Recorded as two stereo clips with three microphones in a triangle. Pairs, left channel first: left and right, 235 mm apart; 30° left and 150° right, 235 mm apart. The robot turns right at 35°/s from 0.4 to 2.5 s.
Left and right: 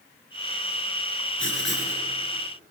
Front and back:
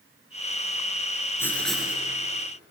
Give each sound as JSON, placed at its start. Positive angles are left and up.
{"t": 1.4, "sound": "writing", "azimuth_deg": 110, "distance_m": 3.5}